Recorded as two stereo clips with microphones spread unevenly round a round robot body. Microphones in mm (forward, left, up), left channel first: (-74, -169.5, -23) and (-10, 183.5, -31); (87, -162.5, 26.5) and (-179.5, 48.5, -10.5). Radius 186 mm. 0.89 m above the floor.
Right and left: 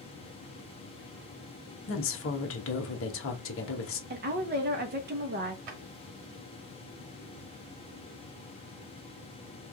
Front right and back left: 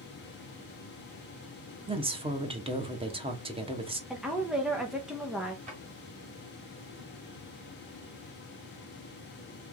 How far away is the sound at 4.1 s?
About 0.8 m.